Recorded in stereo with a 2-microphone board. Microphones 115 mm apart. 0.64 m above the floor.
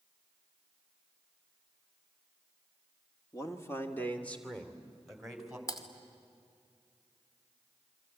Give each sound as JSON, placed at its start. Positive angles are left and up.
{"t": 3.3, "sound": "a man speaking", "side_deg": 30, "distance_m": 1.9}
{"t": 5.7, "sound": "typing on a keyboard", "side_deg": 30, "distance_m": 2.5}